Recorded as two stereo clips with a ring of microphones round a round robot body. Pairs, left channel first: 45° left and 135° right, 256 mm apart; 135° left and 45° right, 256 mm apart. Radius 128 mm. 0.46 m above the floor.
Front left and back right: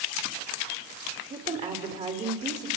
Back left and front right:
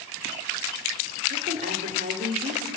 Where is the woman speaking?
85° right, 1.5 m.